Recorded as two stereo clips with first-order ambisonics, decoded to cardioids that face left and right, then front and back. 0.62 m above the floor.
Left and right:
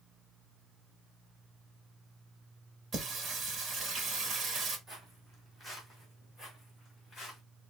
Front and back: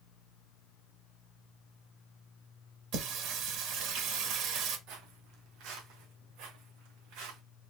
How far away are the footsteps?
About 1.6 m.